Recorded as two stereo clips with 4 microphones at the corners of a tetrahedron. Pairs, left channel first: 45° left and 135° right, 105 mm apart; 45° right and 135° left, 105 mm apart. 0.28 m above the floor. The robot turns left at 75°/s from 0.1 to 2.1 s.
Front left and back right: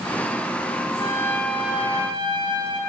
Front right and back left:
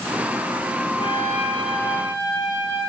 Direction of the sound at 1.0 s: 5° right.